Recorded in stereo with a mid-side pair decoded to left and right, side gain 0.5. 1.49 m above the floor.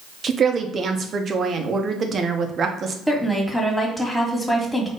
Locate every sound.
0.2 s a woman speaking: 45° right, 0.9 m
3.1 s a woman speaking: 5° left, 1.7 m